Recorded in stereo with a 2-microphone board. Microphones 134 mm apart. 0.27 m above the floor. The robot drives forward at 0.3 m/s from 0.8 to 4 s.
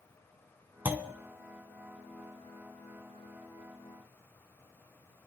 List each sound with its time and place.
0.8 s a clunk: 15° right (ahead or behind), 0.6 m